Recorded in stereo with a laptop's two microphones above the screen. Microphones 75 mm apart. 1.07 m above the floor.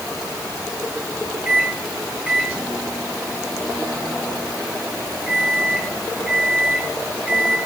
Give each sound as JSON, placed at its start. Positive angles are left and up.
{"t": 1.4, "sound": "a microwave", "side_deg": -15, "distance_m": 7.0}